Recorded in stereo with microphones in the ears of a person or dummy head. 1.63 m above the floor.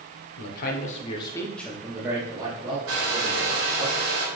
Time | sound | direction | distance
0.4 | a man speaking | 60° left (ahead or behind) | 0.8 m
2.9 | a hair dryer | 70° right (ahead or behind) | 1.2 m